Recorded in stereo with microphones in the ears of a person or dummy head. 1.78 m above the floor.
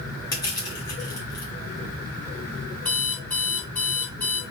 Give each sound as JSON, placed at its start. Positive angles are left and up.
{"t": 0.3, "sound": "crushing", "side_deg": 25, "distance_m": 0.7}
{"t": 2.9, "sound": "an alarm clock", "side_deg": 5, "distance_m": 1.5}